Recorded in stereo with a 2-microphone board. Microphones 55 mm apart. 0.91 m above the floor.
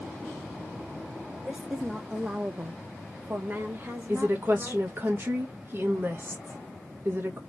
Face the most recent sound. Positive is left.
turn(degrees=-45)  # may be behind; listen again after turning